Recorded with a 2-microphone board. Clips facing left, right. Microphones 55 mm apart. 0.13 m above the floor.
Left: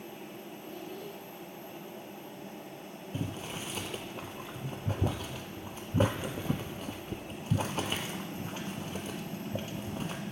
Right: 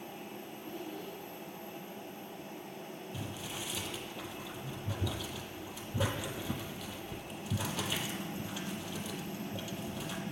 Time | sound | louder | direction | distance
0.6 | a child speaking | even | 15° right (ahead or behind) | 2 m
3.1 | boiling | left 6 dB | 40° left (ahead or behind) | 0.8 m